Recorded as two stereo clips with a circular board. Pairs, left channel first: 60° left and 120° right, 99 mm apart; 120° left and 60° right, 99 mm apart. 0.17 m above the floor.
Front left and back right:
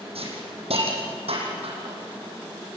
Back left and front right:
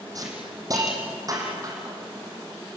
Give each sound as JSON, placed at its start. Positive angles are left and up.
{"t": 0.1, "sound": "a hiss", "azimuth_deg": -110, "distance_m": 5.5}